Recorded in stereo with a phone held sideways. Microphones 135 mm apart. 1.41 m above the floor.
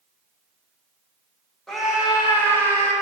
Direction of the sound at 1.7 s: Centre (ahead or behind).